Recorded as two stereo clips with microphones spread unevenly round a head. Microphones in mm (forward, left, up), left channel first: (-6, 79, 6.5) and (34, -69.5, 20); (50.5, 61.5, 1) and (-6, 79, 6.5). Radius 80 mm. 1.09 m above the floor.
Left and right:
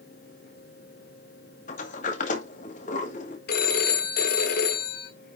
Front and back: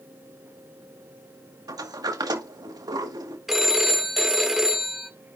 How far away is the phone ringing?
About 1.7 m.